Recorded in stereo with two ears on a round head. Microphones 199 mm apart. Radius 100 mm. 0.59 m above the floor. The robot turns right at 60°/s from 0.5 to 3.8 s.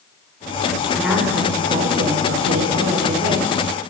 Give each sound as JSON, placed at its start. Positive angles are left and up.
{"t": 0.9, "sound": "a woman speaking", "azimuth_deg": 175, "distance_m": 1.9}